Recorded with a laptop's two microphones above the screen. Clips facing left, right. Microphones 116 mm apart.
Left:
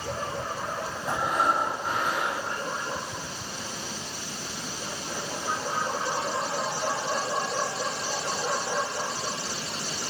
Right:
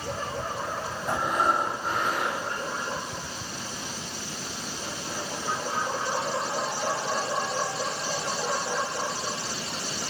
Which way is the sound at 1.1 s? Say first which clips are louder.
Even; 5° left (ahead or behind).